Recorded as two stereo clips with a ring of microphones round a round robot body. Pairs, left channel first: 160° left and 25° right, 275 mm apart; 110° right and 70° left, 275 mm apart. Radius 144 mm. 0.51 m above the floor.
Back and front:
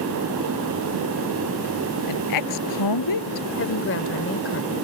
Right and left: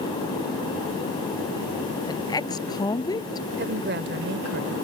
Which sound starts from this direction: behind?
A woman speaking, at 2.1 s.